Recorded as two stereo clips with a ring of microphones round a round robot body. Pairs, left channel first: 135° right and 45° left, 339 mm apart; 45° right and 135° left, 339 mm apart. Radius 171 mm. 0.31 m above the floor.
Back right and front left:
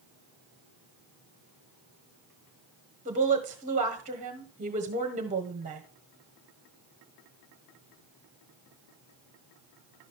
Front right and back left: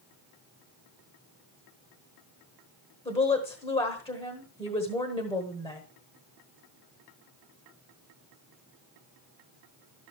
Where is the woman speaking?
10° left, 1.2 m.